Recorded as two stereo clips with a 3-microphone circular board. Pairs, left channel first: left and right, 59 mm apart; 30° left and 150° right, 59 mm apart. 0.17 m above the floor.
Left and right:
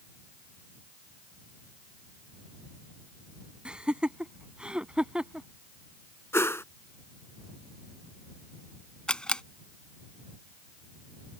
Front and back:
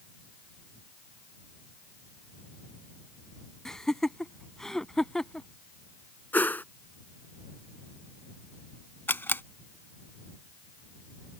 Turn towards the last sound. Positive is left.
turn(degrees=25)